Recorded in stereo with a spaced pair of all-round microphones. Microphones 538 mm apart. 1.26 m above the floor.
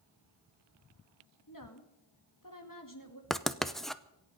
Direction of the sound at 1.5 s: 35° left (ahead or behind).